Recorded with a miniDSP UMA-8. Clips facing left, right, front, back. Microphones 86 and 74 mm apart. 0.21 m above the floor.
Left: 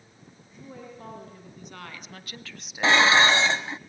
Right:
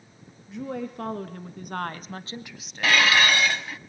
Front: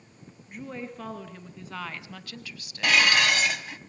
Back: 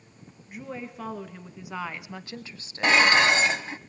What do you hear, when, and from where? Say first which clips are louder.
0.5 s a woman speaking: right 11 dB, even; 95° right, 3.5 m; by 3.0 s 135° left, 1.2 m
2.8 s dishes clattering: left 2 dB, back 3 dB; 140° left, 0.8 m